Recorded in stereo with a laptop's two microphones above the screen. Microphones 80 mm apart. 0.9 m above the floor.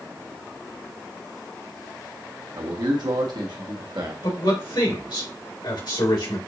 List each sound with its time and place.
2.6 s a man speaking: 65° right (ahead or behind), 1.3 m
4.2 s a man speaking: 75° left (ahead or behind), 3.5 m